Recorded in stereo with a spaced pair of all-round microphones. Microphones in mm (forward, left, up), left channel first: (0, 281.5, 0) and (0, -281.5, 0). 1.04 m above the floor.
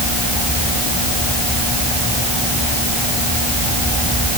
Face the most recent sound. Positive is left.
No sound to turn to.